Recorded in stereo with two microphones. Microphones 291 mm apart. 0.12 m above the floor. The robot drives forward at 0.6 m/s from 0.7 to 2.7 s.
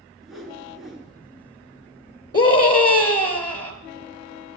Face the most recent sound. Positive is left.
turn(degrees=55)  # may be behind; listen again after turning